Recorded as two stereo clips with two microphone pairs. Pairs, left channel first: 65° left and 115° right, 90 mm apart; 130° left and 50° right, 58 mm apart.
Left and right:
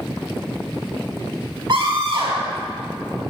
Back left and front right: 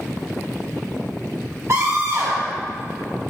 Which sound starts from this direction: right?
A scream, at 1.7 s.